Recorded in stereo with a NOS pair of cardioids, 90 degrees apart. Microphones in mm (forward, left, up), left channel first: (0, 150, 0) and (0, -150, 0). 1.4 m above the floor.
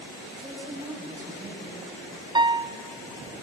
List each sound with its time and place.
0.3 s a woman speaking: 10° right, 7 m
2.4 s a piano: 15° right, 0.7 m